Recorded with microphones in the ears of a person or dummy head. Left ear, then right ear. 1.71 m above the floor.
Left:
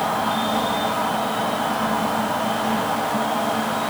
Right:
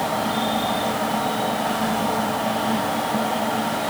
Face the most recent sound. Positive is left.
turn(degrees=-10)  # may be behind; listen again after turning